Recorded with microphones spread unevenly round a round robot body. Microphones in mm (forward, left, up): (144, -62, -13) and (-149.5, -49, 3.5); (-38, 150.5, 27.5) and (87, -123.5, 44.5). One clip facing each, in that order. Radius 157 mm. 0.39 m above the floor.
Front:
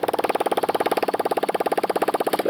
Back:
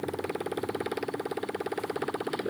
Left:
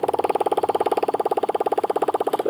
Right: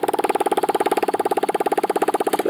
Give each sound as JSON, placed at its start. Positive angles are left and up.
{"t": 0.0, "sound": "a motorcycle", "azimuth_deg": -10}